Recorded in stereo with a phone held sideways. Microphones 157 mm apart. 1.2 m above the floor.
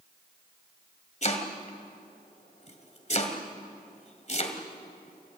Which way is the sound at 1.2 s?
45° left (ahead or behind).